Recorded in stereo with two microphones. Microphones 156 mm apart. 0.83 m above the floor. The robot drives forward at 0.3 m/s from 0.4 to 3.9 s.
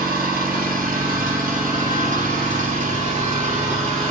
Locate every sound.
0.0 s an engine running: 65° right (ahead or behind), 1.9 m; by 4.1 s 45° right (ahead or behind), 2.5 m